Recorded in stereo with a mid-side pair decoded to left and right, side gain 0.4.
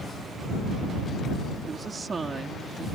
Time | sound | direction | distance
1.7 | a woman speaking | 40° right | ?